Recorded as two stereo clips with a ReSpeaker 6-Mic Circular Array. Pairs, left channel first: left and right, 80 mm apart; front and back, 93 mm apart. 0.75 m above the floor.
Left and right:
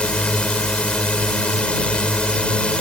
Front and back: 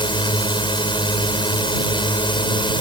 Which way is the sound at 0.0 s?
15° left.